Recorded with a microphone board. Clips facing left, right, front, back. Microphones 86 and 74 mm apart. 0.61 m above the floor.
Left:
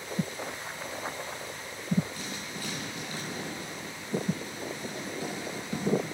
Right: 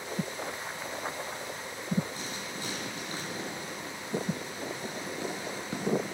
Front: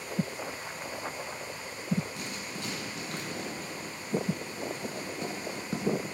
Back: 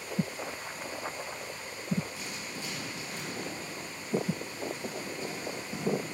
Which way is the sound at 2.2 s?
25° right.